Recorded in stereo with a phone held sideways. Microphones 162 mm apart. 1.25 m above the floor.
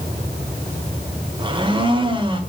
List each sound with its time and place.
1.4 s a blender: 30° right (ahead or behind), 1.7 m